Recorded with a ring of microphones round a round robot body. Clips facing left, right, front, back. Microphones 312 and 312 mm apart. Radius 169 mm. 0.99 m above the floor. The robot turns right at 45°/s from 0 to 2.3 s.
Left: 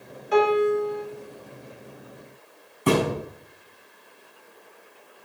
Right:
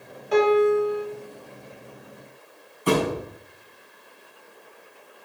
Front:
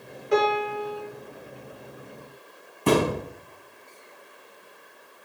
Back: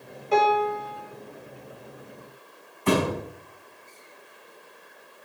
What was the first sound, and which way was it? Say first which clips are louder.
A piano: right 2 dB, even; 75° right.